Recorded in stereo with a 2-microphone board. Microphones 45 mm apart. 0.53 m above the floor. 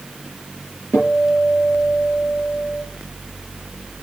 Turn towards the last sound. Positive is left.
turn(degrees=65)  # may be behind; listen again after turning